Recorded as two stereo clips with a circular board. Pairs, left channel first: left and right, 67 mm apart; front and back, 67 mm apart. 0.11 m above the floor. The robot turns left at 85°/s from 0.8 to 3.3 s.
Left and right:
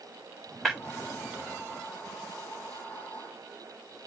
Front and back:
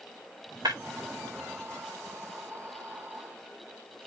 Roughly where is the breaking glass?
Behind.